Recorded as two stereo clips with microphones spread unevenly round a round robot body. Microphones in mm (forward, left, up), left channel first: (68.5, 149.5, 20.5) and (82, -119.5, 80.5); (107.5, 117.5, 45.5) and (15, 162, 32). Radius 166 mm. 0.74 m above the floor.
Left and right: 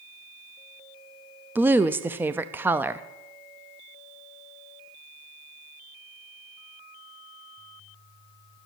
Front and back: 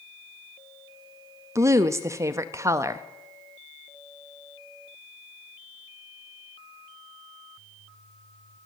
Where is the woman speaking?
175° left, 0.5 m.